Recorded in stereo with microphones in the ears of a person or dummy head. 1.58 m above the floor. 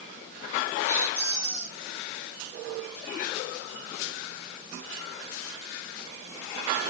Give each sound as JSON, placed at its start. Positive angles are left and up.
{"t": 0.9, "sound": "a squeak", "side_deg": -35, "distance_m": 1.1}